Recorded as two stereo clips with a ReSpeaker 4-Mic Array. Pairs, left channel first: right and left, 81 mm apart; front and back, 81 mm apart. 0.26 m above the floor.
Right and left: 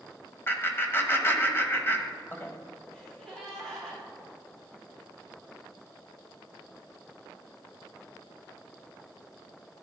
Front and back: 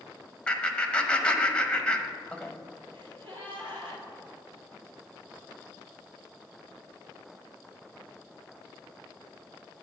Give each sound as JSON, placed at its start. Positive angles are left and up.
{"t": 0.5, "sound": "laughter", "azimuth_deg": -65, "distance_m": 1.0}
{"t": 2.9, "sound": "a gasp", "azimuth_deg": -175, "distance_m": 2.5}